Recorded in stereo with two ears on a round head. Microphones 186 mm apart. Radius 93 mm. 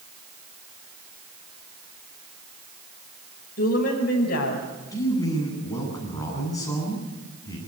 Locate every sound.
3.6 s a woman speaking: 45° left (ahead or behind), 5.5 m; by 4.7 s 50° left (ahead or behind), 6 m
4.9 s a man speaking: 15° left (ahead or behind), 9 m